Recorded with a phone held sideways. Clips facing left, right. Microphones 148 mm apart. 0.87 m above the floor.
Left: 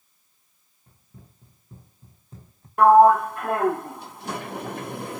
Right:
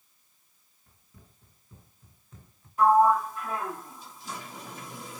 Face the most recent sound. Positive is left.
turn(degrees=65)  # may be behind; listen again after turning